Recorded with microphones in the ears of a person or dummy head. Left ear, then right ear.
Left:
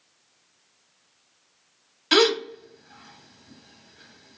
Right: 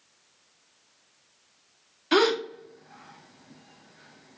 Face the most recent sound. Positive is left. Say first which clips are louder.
# left 3 dB
turn(degrees=30)  # may be behind; listen again after turning